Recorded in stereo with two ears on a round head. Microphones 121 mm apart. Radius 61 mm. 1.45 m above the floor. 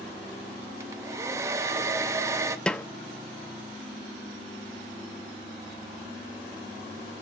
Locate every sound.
0.8 s a hair dryer: 20° right (ahead or behind), 0.8 m
2.7 s a snare drum: 5° left (ahead or behind), 0.6 m